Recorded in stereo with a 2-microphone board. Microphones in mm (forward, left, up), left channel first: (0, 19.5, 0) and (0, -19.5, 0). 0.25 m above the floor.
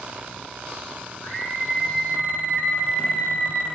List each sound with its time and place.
1.2 s a scream: 80° left, 9 m; by 3.7 s 70° left (ahead or behind), 9 m